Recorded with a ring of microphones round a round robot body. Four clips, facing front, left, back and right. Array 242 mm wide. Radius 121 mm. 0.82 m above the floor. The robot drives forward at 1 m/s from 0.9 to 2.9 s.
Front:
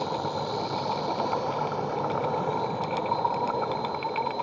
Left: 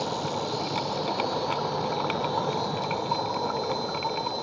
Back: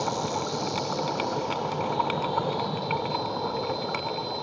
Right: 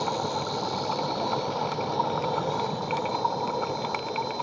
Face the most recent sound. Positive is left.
turn(degrees=170)